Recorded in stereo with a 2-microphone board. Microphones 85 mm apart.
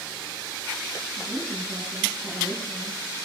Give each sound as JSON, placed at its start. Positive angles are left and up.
{"t": 1.2, "sound": "a woman speaking", "side_deg": -25, "distance_m": 8.0}